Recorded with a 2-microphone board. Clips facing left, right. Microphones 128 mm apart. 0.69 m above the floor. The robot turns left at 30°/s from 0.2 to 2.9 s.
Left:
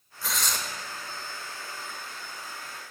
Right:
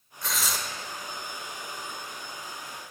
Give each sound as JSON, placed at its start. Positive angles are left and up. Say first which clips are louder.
{"t": 0.2, "sound": "tearing paper", "louder": "even", "side_deg": 5, "distance_m": 1.1}